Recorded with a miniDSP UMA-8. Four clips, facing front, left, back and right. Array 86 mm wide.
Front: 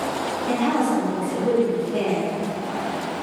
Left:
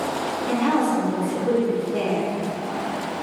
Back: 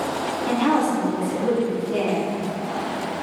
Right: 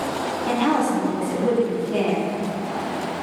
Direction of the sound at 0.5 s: 125° right.